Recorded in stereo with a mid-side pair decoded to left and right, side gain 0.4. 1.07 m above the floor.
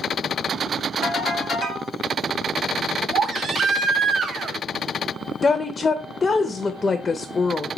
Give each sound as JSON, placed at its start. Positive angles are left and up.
{"t": 1.0, "sound": "a ringtone", "azimuth_deg": -70, "distance_m": 2.0}
{"t": 3.1, "sound": "a baby crying", "azimuth_deg": -60, "distance_m": 0.6}
{"t": 5.4, "sound": "a woman speaking", "azimuth_deg": 30, "distance_m": 0.6}